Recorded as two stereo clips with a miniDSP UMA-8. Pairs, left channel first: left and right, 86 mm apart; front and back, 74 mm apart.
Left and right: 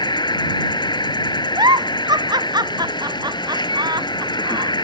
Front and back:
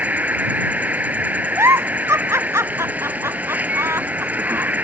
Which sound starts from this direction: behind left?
An insect, at 0.0 s.